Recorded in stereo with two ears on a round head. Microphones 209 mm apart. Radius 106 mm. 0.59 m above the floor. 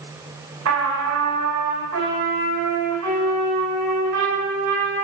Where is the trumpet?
70° right (ahead or behind), 5 m.